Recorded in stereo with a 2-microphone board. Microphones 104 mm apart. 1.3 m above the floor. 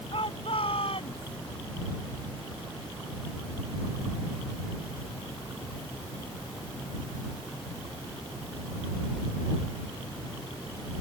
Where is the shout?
60° left (ahead or behind); by 1.4 s 70° left (ahead or behind).